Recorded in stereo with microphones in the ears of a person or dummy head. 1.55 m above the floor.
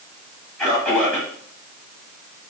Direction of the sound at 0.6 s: 5° right (ahead or behind).